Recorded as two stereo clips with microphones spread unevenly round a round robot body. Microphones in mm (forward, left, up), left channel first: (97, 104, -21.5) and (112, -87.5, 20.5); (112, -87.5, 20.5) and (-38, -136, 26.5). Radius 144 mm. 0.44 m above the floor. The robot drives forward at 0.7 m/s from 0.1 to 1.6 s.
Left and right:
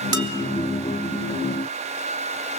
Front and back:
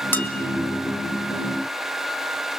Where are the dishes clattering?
60° right, 2.5 m.